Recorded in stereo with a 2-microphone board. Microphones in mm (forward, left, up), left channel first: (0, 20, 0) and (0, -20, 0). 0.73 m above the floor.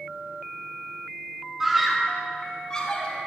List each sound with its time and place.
1.6 s a scream: 5° right (ahead or behind), 1.8 m; by 3.2 s 25° left (ahead or behind), 3 m